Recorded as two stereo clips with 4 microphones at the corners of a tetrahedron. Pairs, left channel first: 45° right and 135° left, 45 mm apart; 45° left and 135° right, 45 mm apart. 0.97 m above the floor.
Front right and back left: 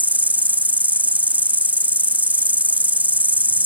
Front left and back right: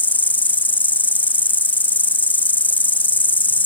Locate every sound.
0.0 s an insect: 85° left